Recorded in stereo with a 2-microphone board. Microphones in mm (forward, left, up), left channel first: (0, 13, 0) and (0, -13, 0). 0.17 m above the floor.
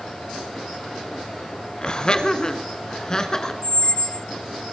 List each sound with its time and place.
1.8 s laughter: 30° left (ahead or behind), 1.4 m; by 3.5 s 25° left (ahead or behind), 1.9 m
3.6 s a squeak: 30° left (ahead or behind), 0.5 m